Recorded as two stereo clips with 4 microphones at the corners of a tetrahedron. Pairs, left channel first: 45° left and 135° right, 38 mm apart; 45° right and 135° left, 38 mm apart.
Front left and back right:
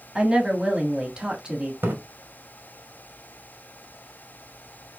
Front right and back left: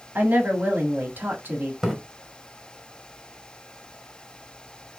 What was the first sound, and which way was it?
A woman speaking, 160° left.